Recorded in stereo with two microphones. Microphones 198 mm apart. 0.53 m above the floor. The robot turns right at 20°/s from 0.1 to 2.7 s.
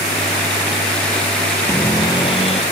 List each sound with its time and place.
1.7 s a cupboard door: 15° left (ahead or behind); by 2.6 s 30° left (ahead or behind)